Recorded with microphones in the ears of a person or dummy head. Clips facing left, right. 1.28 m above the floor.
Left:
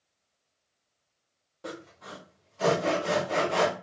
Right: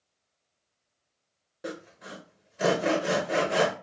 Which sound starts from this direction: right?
Sawing, at 1.6 s.